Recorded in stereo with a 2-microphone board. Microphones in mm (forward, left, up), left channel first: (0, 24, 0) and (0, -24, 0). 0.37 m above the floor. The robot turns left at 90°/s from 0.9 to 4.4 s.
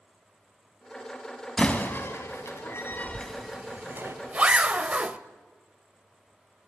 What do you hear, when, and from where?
1.6 s a door slam: 15° left (ahead or behind), 2.0 m; by 4.2 s 60° right (ahead or behind), 2.0 m
3.1 s a zipper: 30° right (ahead or behind), 0.8 m; by 5.2 s 25° right (ahead or behind), 0.8 m